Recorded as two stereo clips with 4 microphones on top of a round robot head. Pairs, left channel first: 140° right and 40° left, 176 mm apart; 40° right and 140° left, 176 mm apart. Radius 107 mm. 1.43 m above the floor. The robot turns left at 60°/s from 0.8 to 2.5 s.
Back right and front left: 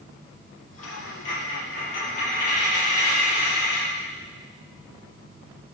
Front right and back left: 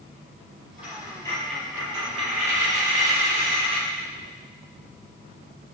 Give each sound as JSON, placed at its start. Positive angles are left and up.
{"t": 0.8, "sound": "a dropped coin", "azimuth_deg": -85, "distance_m": 7.0}